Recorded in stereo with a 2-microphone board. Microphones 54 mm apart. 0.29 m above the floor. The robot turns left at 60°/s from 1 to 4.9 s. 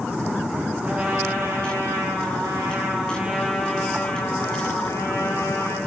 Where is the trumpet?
25° right, 4 m; by 5.8 s 100° left, 4 m.